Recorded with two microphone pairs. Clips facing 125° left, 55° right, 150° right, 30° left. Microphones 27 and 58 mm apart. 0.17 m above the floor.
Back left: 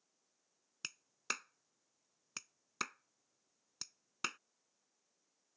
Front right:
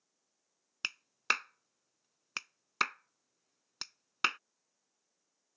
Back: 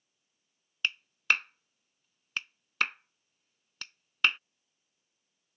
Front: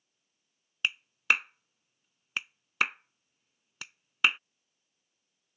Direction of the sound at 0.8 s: 45° right.